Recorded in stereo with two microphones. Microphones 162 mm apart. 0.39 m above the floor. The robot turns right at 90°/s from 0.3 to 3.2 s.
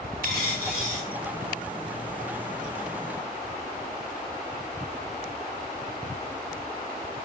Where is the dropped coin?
115° right, 1.1 m; by 1.1 s 45° right, 1.1 m.